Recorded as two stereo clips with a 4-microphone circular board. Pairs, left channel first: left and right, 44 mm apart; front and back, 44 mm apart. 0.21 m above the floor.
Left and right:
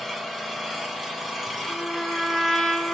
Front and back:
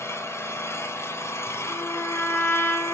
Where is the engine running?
Straight ahead, 1.7 m.